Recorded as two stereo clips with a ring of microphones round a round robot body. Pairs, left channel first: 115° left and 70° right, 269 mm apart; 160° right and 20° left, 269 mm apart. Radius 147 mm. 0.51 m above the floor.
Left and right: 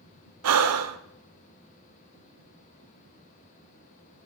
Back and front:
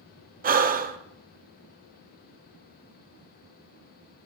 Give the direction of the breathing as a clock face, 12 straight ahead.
1 o'clock.